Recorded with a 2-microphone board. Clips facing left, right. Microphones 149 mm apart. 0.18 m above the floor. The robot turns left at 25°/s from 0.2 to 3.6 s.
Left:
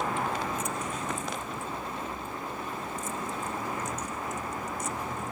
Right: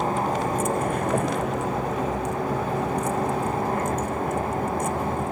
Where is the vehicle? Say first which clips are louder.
Right 7 dB; 40° right; by 5.3 s 125° right.